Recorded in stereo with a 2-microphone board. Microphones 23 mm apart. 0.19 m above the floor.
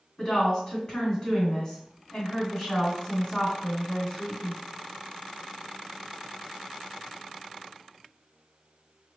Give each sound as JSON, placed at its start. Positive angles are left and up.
{"t": 0.2, "sound": "a woman speaking", "side_deg": 25, "distance_m": 1.9}